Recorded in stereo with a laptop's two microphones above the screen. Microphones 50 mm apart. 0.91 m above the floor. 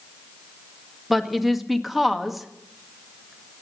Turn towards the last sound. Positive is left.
turn(degrees=0)  # may be behind; listen again after turning